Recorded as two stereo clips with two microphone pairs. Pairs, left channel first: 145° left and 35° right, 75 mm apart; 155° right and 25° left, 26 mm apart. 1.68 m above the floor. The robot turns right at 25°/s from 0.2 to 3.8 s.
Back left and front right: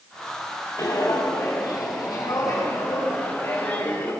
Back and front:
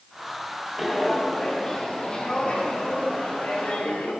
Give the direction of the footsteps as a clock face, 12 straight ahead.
8 o'clock.